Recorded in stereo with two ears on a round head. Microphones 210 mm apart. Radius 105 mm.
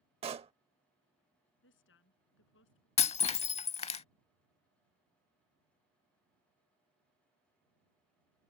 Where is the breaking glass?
25° left (ahead or behind).